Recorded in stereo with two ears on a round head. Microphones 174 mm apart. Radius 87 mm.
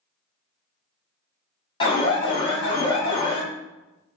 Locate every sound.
1.8 s an alarm: 30° left (ahead or behind), 1.8 m